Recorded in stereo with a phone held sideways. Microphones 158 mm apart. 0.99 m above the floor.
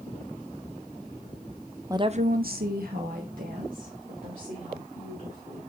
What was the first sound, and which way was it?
A woman speaking, 20° right (ahead or behind).